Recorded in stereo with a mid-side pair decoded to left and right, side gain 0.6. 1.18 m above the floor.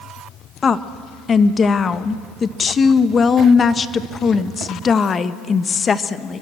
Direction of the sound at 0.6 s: 35° left.